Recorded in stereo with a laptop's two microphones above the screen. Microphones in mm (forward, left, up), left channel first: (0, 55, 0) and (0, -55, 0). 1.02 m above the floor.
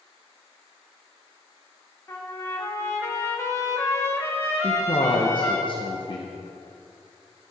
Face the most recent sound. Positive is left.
turn(degrees=45)  # may be behind; listen again after turning